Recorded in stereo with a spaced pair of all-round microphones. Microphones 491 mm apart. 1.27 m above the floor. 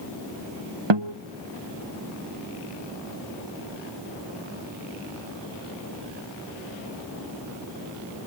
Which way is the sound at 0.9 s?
70° right (ahead or behind).